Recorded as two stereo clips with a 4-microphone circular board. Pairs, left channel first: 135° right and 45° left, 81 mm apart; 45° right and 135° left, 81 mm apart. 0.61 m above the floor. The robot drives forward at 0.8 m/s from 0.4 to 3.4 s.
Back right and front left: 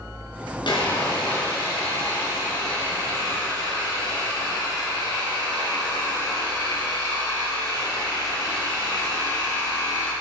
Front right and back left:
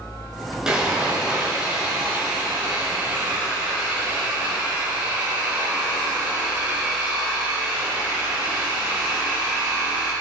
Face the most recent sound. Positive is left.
turn(degrees=-155)